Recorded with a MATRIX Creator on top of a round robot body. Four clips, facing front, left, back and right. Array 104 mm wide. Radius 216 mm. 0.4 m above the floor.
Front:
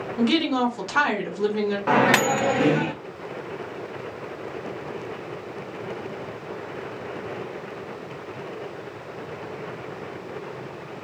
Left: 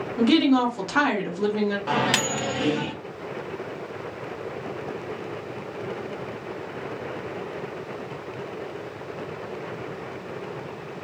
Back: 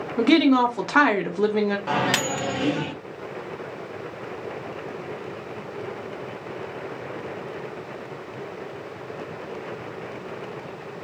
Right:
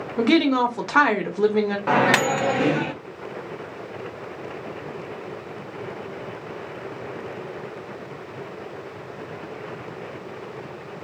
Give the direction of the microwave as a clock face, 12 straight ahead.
2 o'clock.